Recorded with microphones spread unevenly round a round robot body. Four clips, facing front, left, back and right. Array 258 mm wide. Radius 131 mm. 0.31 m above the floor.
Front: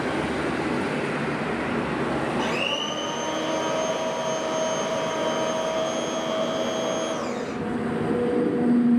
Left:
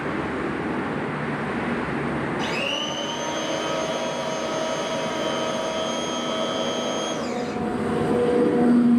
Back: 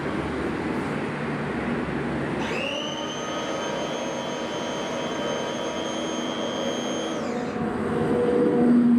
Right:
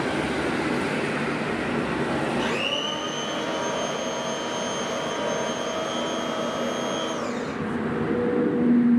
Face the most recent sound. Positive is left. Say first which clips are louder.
# even, front 2 dB
turn(degrees=10)